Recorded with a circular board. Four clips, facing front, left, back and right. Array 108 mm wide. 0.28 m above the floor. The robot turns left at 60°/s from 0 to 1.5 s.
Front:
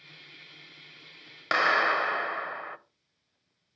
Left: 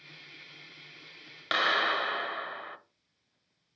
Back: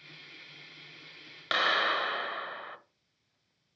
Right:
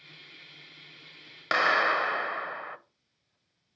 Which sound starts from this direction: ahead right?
A clap, at 1.5 s.